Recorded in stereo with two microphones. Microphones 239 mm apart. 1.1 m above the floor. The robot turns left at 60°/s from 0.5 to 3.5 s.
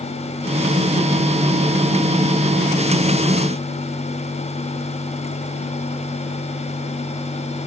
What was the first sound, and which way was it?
Only background noise.